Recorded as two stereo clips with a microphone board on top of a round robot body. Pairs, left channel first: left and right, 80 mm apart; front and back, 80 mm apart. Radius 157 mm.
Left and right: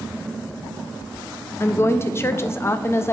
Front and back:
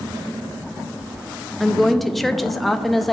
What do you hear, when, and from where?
1.6 s a woman speaking: 90° left, 0.6 m